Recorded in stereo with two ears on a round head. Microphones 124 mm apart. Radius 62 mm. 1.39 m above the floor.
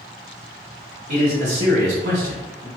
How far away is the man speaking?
About 1.9 m.